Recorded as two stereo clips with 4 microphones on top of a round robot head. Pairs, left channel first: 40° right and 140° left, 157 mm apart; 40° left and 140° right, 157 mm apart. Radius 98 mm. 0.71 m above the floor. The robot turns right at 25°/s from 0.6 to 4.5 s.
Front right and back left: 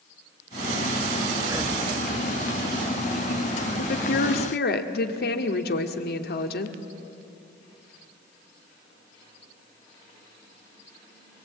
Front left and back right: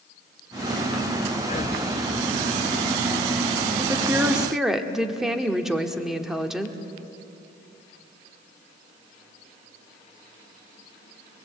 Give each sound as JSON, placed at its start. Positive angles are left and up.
{"t": 1.4, "sound": "breathing", "azimuth_deg": 70, "distance_m": 1.1}
{"t": 3.8, "sound": "a woman speaking", "azimuth_deg": -70, "distance_m": 1.6}